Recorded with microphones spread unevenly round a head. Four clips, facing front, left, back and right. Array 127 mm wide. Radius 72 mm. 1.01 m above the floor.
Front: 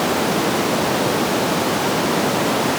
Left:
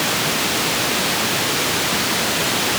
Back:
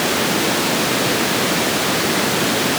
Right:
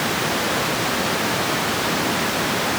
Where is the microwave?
No microwave in this recording.